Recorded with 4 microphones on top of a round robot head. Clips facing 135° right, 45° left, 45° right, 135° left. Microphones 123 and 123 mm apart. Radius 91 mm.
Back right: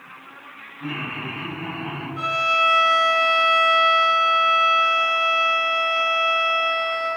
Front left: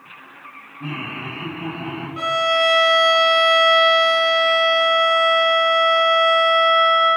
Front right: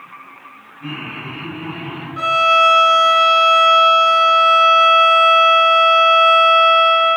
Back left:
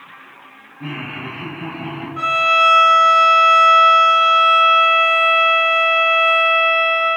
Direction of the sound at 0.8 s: 110° left.